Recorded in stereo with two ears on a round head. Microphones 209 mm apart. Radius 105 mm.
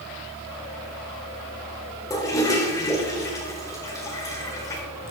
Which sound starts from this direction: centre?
A toilet flushing, at 2.1 s.